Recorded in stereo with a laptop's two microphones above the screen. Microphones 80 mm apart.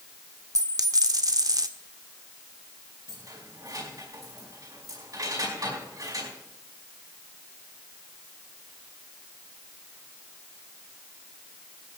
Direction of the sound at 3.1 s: 50° right (ahead or behind).